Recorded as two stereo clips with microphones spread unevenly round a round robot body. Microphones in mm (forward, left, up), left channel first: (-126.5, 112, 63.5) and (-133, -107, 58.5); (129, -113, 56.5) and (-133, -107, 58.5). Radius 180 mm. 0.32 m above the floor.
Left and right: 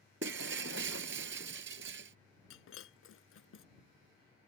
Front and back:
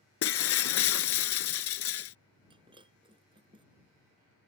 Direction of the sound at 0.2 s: 35° right.